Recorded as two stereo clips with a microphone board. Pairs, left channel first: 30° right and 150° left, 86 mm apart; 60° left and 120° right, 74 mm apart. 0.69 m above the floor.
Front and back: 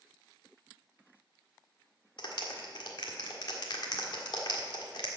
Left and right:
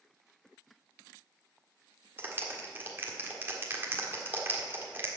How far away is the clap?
About 1.5 m.